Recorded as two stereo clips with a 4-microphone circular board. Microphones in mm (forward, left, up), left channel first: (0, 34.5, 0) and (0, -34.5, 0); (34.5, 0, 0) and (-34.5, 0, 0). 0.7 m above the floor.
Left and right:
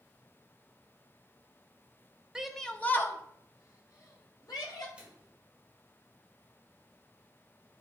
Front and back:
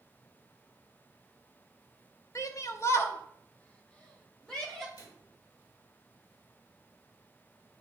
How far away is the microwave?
About 2 m.